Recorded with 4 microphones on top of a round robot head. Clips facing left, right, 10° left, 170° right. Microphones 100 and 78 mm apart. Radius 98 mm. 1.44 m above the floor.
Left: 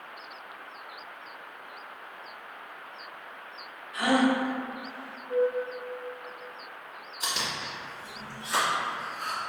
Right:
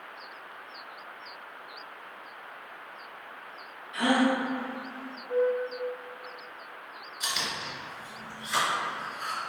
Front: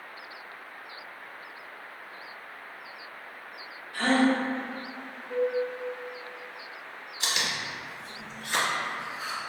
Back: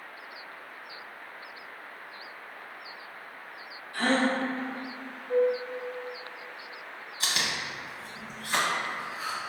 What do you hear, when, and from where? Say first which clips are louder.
3.9 s a gasp: left 1 dB, front 2 dB; 105° right, 1.1 m
5.3 s a flute: even, back 4 dB; 85° right, 0.8 m
7.2 s chewing: left 1 dB, even; 150° left, 0.8 m